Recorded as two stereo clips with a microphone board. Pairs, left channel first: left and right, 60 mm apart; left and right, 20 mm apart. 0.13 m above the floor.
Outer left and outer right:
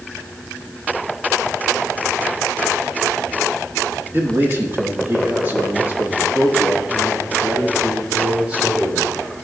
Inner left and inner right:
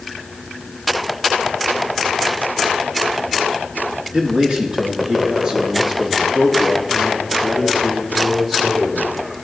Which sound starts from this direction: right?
A man speaking, at 4.1 s.